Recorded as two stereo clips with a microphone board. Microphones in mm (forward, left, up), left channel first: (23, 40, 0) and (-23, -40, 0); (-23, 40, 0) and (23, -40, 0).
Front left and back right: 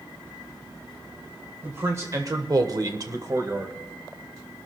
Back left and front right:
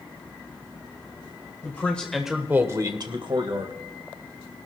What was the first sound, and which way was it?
A man speaking, straight behind.